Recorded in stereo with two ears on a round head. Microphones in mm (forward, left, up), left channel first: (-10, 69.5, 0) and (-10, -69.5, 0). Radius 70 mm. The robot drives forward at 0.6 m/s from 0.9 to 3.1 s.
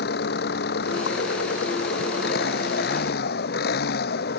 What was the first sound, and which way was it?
An engine running, 70° left (ahead or behind).